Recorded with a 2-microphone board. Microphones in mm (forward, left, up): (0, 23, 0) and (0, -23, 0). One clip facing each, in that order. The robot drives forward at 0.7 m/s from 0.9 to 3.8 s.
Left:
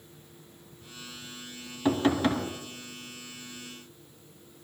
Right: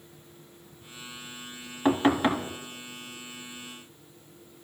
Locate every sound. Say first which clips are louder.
1.9 s knocking: right 2 dB; 30° right (ahead or behind), 1.5 m; by 2.5 s 25° right (ahead or behind), 1.9 m